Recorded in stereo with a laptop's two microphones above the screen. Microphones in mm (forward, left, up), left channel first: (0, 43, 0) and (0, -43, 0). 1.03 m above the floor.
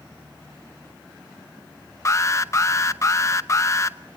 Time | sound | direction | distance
2.0 | an alarm | 35° left (ahead or behind) | 0.7 m